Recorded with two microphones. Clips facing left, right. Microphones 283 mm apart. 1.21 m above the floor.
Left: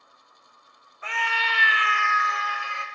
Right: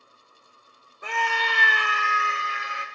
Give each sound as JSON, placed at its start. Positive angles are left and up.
{"t": 1.0, "sound": "a scream", "side_deg": -45, "distance_m": 0.8}